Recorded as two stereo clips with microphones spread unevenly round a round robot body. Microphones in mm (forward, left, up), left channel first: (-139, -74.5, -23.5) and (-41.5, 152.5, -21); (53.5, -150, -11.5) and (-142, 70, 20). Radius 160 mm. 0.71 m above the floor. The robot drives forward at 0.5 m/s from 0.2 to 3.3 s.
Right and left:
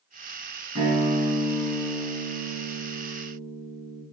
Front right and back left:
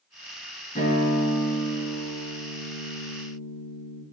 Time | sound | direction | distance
0.8 | a guitar | 20° left | 3.5 m